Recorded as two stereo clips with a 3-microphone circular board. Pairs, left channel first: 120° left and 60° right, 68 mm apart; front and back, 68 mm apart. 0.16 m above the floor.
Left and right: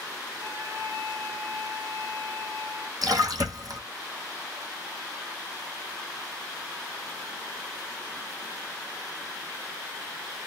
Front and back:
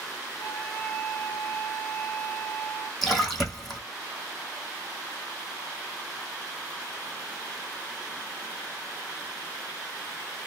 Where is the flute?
110° right, 2.5 m.